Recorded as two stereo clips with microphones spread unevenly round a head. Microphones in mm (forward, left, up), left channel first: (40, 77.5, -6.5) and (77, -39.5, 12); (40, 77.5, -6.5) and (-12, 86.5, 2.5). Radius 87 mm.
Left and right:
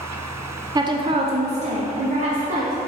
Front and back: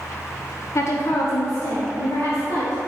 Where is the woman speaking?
10° right, 0.7 m; by 2.8 s 55° right, 1.6 m.